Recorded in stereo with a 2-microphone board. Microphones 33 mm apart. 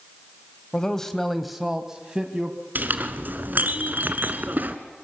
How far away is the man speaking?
About 1.3 m.